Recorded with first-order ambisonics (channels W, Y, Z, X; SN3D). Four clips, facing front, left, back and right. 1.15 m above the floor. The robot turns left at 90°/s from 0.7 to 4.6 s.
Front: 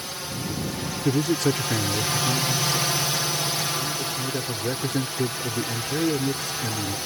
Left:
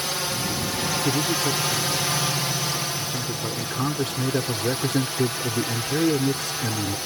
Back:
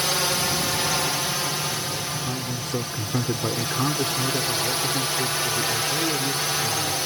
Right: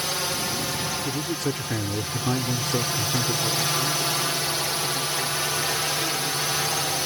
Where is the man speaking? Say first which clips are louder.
Left 4 dB, front 3 dB; 30° left; by 7.0 s 70° left.